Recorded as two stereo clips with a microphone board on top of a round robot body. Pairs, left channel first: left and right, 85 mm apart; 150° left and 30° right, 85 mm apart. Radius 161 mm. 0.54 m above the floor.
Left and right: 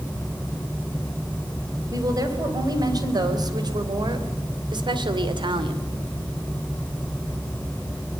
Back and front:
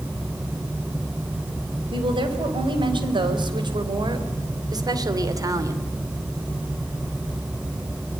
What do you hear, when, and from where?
1.9 s a woman speaking: 45° right, 4.5 m; by 5.9 s 80° right, 2.5 m